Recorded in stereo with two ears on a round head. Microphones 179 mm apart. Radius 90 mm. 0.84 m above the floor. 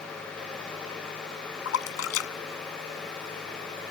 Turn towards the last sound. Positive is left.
turn(degrees=85)